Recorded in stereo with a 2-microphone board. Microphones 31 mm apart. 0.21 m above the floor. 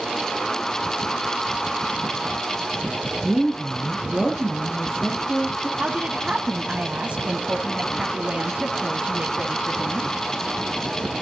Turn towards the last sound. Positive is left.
turn(degrees=-40)  # may be behind; listen again after turning